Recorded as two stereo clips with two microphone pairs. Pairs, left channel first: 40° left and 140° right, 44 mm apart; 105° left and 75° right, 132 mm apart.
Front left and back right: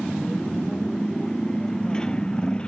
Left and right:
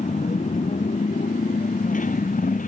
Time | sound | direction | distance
0.0 | a motorcycle | 120° left | ?